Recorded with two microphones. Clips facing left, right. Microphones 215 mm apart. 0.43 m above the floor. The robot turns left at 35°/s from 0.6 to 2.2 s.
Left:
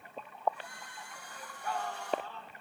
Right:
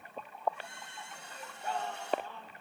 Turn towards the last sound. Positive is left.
turn(degrees=-145)